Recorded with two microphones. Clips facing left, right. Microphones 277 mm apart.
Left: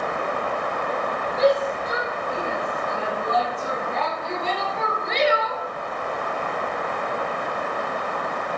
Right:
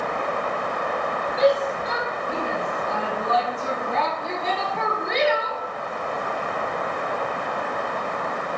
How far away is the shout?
About 7.5 m.